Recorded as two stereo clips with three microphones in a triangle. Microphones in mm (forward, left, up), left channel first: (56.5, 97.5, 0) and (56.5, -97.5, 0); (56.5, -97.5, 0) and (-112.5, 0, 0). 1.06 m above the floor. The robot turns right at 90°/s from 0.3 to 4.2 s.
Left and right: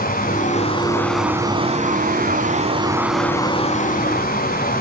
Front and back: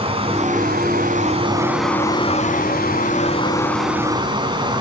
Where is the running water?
100° left, 1.3 m; by 4.8 s 95° left, 1.3 m.